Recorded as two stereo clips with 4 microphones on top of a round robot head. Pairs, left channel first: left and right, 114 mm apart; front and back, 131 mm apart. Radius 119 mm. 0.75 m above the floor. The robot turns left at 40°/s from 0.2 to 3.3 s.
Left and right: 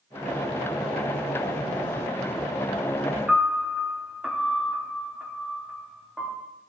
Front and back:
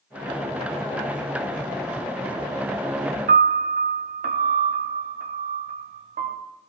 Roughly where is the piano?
Behind.